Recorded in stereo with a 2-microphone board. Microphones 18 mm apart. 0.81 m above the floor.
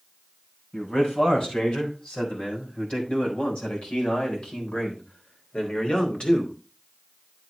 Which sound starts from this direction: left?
A man speaking, at 0.7 s.